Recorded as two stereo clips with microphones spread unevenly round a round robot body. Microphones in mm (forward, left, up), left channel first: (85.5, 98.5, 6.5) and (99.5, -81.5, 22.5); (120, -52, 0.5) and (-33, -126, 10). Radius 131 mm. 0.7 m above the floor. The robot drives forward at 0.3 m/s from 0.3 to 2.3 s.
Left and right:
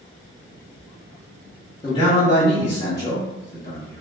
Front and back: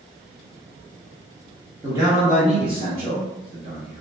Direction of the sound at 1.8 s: 135° left.